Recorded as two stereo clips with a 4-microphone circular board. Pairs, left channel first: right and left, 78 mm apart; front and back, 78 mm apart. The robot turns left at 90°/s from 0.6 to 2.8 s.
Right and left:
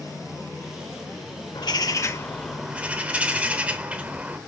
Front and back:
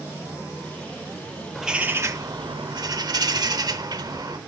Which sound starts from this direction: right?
A bird, at 1.6 s.